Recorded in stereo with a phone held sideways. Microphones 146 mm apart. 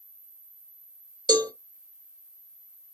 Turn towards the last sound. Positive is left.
turn(degrees=-25)  # may be behind; listen again after turning